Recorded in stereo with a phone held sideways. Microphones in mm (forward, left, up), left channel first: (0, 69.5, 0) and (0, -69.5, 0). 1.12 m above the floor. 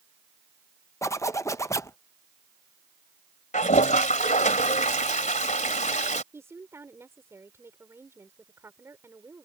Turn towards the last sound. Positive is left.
turn(degrees=-20)  # may be behind; listen again after turning